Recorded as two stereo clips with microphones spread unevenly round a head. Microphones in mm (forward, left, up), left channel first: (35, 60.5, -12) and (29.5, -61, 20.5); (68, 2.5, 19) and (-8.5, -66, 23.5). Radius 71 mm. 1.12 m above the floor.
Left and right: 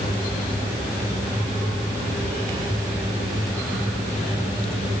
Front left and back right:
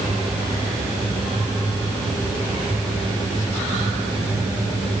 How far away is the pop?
I don't hear a pop.